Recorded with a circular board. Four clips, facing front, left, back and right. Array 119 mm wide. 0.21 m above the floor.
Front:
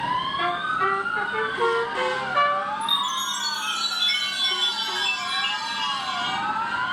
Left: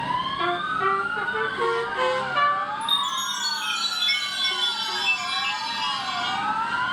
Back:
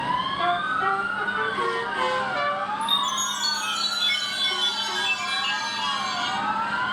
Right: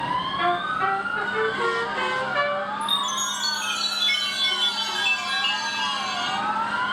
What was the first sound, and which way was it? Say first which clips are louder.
A trumpet: right 1 dB, back 1 dB; 45° right.